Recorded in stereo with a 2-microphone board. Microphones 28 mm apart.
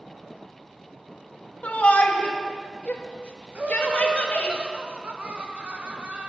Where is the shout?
55° left (ahead or behind), 1.2 m.